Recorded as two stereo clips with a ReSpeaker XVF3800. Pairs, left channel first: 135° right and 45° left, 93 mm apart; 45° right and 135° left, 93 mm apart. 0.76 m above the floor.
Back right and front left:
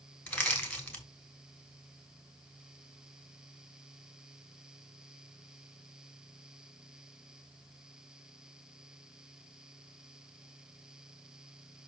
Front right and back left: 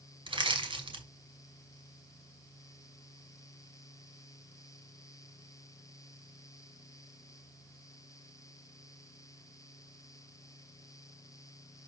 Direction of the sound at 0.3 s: 160° left.